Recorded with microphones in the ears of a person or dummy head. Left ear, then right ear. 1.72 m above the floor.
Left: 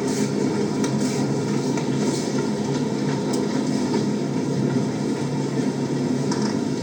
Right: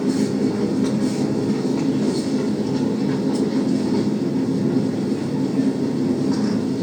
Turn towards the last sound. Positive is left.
turn(degrees=65)  # may be behind; listen again after turning